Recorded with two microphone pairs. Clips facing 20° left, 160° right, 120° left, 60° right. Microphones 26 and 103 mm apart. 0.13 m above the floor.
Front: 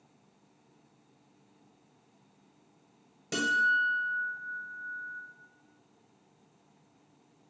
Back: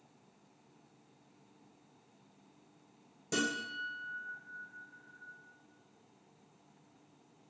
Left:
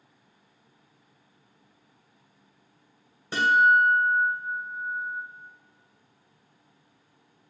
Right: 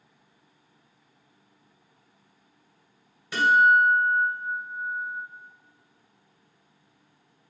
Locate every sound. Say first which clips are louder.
3.3 s a guitar: front 10 dB, right 1 dB; 75° left, 1.4 m